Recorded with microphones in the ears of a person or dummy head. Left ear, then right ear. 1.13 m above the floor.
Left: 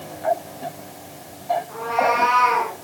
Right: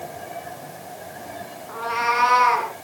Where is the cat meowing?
30° right (ahead or behind), 6.5 m.